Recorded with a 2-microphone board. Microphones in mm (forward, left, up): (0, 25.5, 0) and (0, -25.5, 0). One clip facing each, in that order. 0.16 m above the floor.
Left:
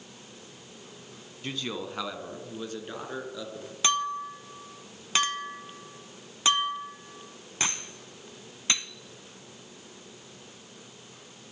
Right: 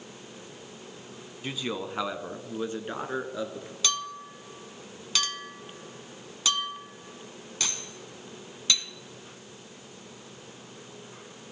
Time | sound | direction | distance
1.4 | a man speaking | 5° right (ahead or behind) | 1.2 m
3.8 | a clink | 30° left (ahead or behind) | 0.8 m